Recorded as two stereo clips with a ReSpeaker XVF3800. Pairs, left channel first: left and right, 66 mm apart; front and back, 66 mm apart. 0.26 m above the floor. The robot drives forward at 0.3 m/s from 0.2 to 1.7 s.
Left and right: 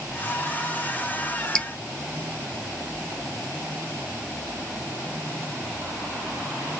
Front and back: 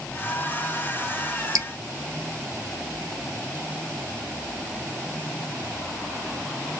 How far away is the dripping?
About 0.7 m.